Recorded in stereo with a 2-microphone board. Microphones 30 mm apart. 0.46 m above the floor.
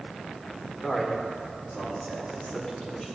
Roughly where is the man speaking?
Left.